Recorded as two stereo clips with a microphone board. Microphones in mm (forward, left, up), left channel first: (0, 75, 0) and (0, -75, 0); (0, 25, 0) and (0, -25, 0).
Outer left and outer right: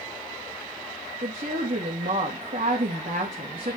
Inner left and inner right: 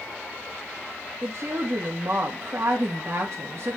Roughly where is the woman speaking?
Right.